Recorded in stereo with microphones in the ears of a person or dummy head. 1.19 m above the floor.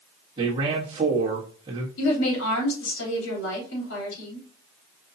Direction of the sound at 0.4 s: 20° right (ahead or behind).